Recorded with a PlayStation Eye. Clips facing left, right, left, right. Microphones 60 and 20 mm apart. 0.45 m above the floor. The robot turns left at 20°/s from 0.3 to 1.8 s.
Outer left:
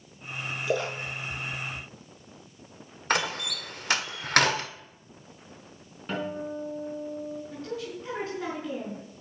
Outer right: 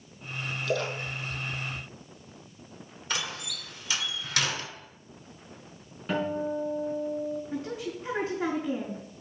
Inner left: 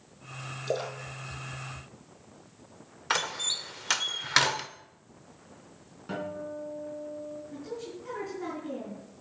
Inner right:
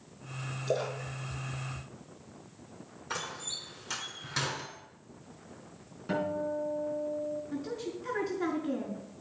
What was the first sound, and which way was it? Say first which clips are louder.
A splash: outer left 1 dB, even; 15° left (ahead or behind).